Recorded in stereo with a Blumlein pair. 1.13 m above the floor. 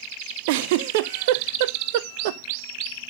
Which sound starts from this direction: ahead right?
A giggle, at 0.5 s.